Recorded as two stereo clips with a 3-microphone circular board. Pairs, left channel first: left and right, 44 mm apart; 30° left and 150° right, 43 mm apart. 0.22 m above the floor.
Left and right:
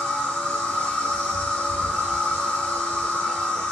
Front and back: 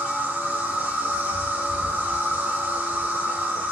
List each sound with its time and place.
0.0 s an insect: 165° left, 1.8 m